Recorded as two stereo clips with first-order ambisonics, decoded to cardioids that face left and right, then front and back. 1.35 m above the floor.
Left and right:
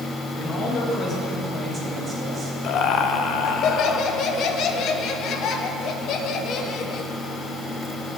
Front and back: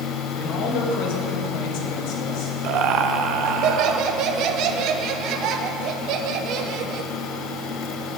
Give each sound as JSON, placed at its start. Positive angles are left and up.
{"t": 0.4, "sound": "a man speaking", "azimuth_deg": 45, "distance_m": 1.7}
{"t": 2.6, "sound": "laughter", "azimuth_deg": 140, "distance_m": 0.8}